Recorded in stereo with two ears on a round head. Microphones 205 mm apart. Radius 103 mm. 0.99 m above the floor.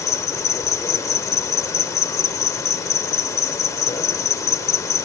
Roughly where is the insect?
Centre.